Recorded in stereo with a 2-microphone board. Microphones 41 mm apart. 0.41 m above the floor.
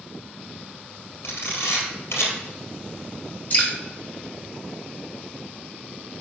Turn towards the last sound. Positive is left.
turn(degrees=40)  # may be behind; listen again after turning